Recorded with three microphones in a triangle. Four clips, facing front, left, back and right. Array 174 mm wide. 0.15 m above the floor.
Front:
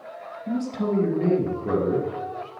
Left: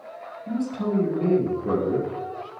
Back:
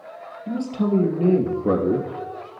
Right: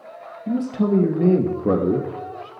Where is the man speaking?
100° right, 2.5 m; by 2.5 s 130° right, 2.5 m.